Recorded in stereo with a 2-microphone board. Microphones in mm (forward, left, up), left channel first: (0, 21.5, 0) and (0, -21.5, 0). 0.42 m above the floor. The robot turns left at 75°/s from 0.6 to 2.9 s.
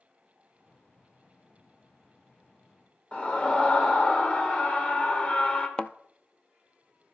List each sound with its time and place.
3.1 s a scream: 25° left (ahead or behind), 1.2 m
5.8 s a thud: 25° left (ahead or behind), 0.6 m